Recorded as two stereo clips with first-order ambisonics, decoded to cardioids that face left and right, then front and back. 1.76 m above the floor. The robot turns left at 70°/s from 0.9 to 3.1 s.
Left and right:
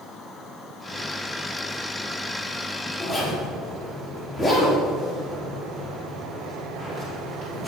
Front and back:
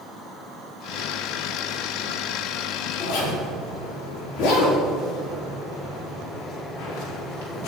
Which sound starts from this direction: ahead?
A zipper, at 3.0 s.